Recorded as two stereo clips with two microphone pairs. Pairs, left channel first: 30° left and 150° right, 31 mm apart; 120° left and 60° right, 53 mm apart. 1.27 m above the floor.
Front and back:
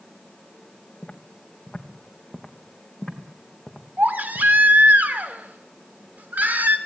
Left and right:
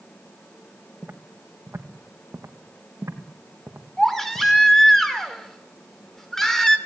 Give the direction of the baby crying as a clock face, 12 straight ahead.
5 o'clock.